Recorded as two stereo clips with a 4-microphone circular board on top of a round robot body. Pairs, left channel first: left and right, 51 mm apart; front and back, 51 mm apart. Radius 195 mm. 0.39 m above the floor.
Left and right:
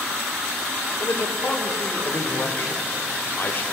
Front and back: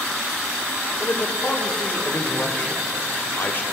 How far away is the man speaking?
About 2 m.